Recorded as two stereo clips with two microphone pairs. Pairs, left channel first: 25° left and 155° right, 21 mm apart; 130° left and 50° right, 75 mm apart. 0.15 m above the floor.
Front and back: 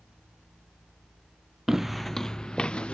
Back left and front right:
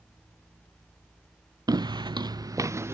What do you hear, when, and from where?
1.7 s footsteps: 80° right; by 2.9 s 5° left